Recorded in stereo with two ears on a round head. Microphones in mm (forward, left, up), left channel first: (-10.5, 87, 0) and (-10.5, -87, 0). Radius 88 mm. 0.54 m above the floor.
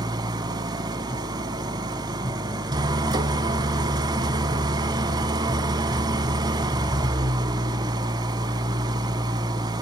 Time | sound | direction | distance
0.0 | an engine running | 20° right (ahead or behind) | 1.0 m